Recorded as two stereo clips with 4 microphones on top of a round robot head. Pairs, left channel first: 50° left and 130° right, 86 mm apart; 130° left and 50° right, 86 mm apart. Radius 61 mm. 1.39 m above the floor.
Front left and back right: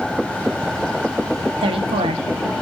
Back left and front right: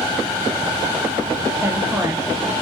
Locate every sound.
1.6 s a woman speaking: 115° right, 0.7 m